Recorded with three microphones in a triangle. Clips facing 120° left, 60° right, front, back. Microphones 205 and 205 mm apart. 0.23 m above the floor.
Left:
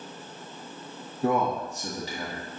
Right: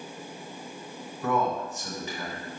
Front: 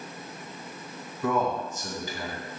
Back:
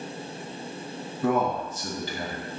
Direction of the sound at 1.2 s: 150° left.